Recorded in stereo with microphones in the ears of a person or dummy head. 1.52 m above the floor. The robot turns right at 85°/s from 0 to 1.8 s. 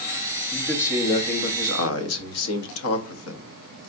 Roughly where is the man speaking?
Ahead.